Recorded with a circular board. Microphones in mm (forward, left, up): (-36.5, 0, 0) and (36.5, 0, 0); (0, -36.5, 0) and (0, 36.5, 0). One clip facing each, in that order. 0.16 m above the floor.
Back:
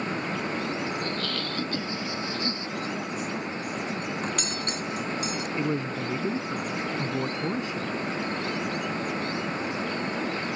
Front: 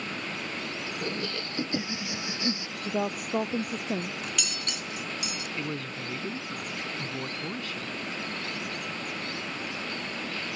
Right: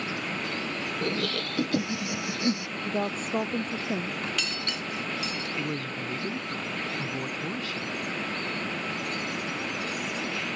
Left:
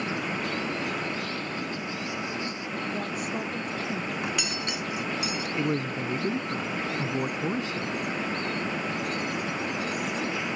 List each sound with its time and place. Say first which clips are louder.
1.0 s laughter: back 3 dB, right 2 dB; 75° right
2.9 s a woman speaking: front 6 dB, right 5 dB; 35° right
4.2 s cutlery clinking: back 5 dB, left 2 dB; 155° left
5.6 s a man speaking: back 8 dB, left 8 dB; 135° left